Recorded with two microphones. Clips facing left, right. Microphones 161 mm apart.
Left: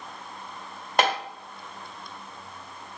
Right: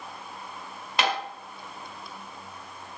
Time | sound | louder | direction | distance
1.0 | tapping | left 3 dB | 50° left (ahead or behind) | 1.7 m